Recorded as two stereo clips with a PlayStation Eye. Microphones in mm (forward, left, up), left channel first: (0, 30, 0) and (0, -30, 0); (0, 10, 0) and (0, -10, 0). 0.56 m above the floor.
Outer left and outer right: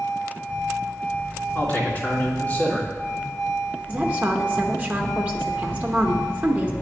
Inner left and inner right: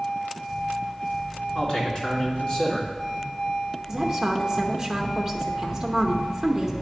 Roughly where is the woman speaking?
Right.